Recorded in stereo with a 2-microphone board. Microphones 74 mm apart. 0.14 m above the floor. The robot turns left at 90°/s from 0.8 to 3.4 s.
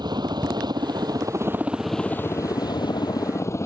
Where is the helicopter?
85° right; by 3.7 s 40° left.